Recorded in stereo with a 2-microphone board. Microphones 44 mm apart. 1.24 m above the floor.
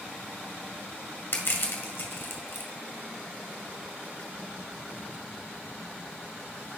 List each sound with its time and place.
1.3 s crushing: 55° left (ahead or behind), 1.9 m